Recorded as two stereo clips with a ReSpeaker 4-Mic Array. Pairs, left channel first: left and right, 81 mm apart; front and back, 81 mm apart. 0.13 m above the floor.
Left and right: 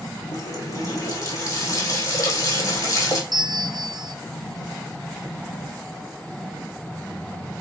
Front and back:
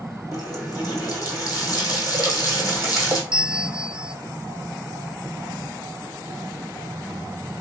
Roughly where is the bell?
Right.